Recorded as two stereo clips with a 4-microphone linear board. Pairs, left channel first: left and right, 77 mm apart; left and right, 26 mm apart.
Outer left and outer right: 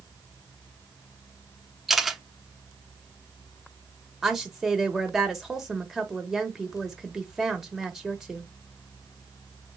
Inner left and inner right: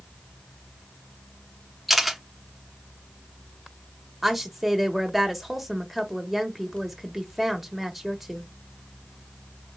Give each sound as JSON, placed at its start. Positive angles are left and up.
{"t": 1.9, "sound": "a camera shutter", "side_deg": 0, "distance_m": 0.6}
{"t": 4.2, "sound": "a woman speaking", "side_deg": -5, "distance_m": 1.0}